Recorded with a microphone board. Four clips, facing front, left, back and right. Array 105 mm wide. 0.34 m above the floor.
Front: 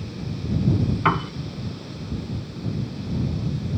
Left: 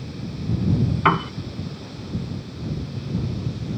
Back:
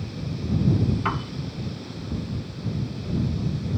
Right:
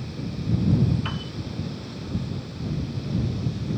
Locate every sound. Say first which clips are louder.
1.1 s a piano: left 13 dB, front 6 dB; 70° left